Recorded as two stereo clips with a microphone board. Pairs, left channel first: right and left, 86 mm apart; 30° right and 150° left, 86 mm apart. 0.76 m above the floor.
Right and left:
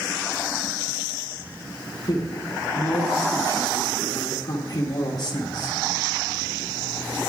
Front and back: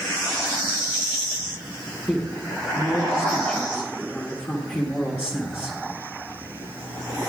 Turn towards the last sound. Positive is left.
turn(degrees=-100)